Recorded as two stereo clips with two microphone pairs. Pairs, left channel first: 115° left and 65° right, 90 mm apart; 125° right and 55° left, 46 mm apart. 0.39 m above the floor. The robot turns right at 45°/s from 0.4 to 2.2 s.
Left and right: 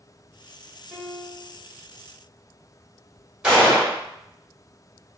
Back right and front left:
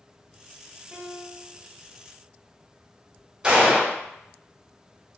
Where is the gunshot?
5° left, 1.5 m.